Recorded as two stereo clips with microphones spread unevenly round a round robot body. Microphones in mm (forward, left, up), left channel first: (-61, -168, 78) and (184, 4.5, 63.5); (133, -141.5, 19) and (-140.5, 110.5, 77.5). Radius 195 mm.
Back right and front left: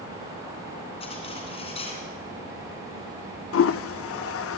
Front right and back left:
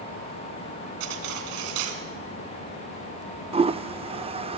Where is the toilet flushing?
145° right, 0.6 m.